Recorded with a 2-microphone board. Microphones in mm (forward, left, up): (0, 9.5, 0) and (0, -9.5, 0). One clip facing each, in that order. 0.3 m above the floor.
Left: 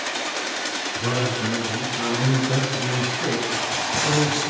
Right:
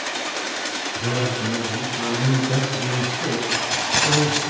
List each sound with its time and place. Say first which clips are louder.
0.9 s a man speaking: even; 60° left (ahead or behind), 3 m; by 4.5 s 10° left (ahead or behind), 1.3 m
3.5 s keys jangling: right 2 dB; 55° right (ahead or behind), 1.5 m